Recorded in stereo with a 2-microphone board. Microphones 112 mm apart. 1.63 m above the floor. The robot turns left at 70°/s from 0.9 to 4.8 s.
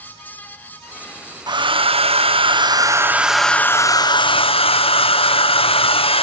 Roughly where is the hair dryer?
Ahead right.